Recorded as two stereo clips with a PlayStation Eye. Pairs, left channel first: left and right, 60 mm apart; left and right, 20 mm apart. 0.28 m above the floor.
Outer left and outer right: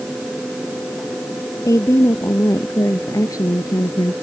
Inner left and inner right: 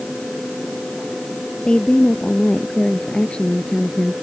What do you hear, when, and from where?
1.6 s a woman speaking: 60° left (ahead or behind); by 4.1 s 75° left (ahead or behind)